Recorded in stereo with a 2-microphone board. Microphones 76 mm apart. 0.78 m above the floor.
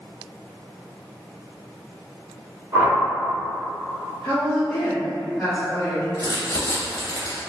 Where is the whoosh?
30° right (ahead or behind), 1.1 m.